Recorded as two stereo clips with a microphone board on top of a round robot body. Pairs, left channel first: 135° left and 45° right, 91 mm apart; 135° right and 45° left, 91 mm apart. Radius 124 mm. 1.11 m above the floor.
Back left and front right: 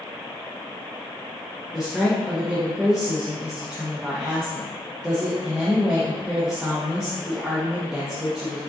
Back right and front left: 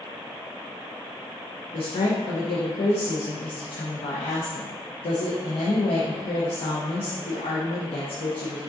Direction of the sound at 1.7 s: 130° right.